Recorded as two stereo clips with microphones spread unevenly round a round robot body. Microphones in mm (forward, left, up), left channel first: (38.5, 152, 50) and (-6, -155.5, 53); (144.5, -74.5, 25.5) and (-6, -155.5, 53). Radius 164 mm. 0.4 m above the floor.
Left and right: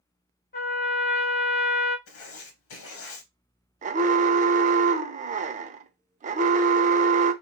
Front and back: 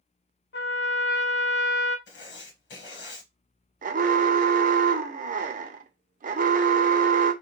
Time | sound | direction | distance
0.5 | a trumpet | 20° left | 1.0 m
2.1 | writing | 35° left | 1.0 m
3.8 | an alarm | 150° right | 0.5 m